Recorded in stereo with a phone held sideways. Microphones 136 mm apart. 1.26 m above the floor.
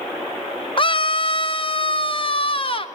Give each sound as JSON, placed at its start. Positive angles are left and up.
{"t": 0.8, "sound": "a scream", "side_deg": 40, "distance_m": 0.6}